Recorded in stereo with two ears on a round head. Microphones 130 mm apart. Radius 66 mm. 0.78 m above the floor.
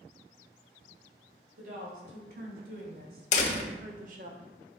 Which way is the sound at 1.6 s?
75° right (ahead or behind).